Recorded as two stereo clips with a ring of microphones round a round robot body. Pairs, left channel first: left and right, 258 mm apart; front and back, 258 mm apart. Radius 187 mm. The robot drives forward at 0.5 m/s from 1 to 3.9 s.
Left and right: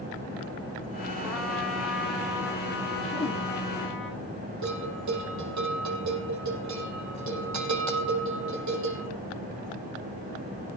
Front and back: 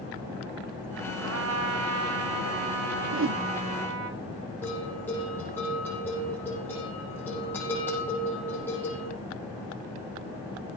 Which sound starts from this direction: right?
A bell, at 4.6 s.